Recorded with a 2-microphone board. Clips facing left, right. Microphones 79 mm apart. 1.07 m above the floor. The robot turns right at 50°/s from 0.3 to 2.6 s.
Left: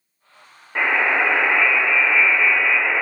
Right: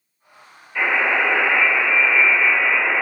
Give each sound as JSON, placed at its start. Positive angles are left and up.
{"t": 0.8, "sound": "a buzzer", "azimuth_deg": 110, "distance_m": 1.2}